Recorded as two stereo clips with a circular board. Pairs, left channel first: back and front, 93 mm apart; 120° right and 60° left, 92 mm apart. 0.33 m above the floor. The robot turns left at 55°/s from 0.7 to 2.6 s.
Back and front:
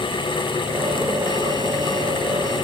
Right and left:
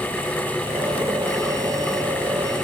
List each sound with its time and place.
Only background noise.